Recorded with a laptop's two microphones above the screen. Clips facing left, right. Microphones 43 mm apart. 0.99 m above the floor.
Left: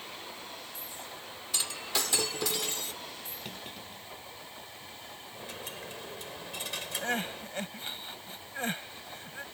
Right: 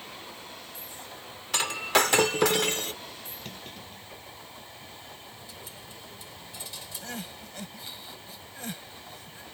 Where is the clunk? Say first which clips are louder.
Even; 5° left (ahead or behind).